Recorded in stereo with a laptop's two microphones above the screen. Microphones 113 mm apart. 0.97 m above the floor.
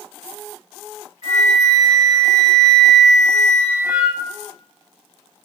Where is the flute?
70° left (ahead or behind), 1.6 m.